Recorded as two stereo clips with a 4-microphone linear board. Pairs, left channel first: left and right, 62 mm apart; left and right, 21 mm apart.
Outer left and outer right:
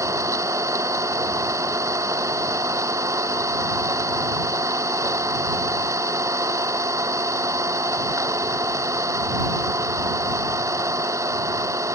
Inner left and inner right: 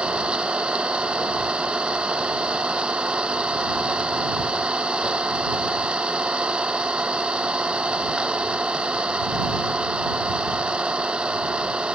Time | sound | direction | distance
0.0 | an engine running | 60° right (ahead or behind) | ?